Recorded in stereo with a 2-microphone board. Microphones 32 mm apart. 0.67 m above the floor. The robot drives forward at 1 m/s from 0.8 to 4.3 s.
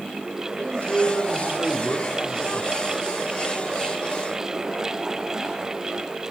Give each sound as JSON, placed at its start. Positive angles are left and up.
{"t": 0.6, "sound": "a man speaking", "side_deg": 50, "distance_m": 3.5}